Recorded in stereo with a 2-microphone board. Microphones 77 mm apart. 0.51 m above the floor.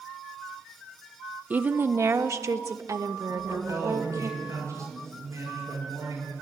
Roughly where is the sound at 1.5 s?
Right.